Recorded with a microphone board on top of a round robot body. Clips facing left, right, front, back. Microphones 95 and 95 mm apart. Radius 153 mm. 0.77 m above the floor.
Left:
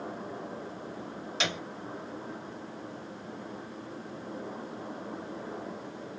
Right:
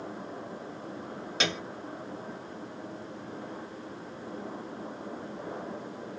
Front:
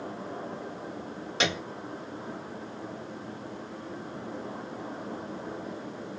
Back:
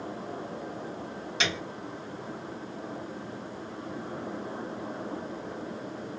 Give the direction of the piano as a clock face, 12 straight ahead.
2 o'clock.